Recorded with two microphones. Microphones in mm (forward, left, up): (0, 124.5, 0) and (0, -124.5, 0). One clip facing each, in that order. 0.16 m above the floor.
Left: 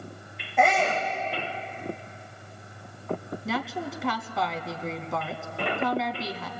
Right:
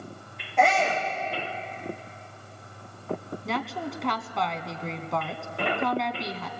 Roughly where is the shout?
Centre.